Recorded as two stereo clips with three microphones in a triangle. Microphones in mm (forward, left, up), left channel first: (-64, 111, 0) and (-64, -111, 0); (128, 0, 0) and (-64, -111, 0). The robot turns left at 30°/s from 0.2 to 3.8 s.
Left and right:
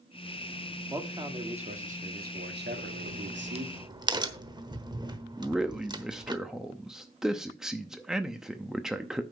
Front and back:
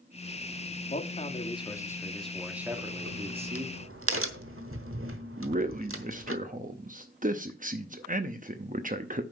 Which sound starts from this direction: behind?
A man speaking, at 5.4 s.